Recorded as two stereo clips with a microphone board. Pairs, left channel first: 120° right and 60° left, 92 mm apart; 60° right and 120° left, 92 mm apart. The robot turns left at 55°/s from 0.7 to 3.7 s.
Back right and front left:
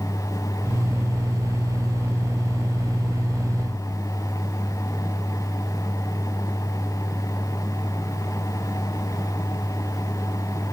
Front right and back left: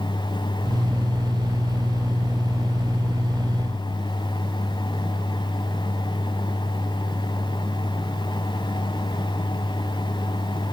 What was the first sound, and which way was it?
Only background noise.